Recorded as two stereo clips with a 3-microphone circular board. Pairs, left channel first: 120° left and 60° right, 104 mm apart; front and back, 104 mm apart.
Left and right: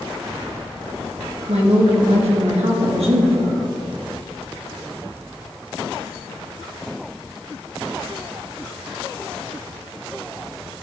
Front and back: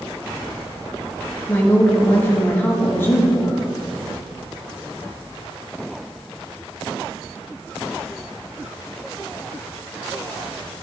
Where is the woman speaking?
70° right, 1.6 m.